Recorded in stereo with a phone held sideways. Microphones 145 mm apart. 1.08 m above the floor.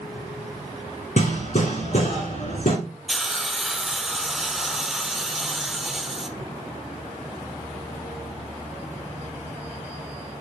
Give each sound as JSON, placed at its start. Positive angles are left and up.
{"t": 1.2, "sound": "hammering", "side_deg": 60, "distance_m": 3.0}
{"t": 3.1, "sound": "a hiss", "side_deg": 0, "distance_m": 0.8}